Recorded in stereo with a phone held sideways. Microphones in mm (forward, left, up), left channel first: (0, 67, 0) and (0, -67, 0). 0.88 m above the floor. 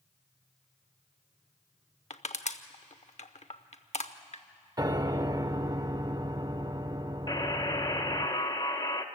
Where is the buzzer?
30° left (ahead or behind), 1.0 m.